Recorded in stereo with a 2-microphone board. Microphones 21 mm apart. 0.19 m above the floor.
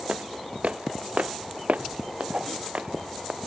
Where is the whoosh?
50° right (ahead or behind).